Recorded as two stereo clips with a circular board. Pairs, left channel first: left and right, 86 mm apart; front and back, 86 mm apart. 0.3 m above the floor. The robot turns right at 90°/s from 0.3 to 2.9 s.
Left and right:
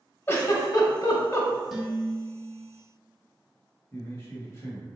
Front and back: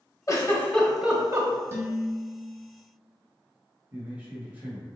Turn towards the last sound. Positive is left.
turn(degrees=120)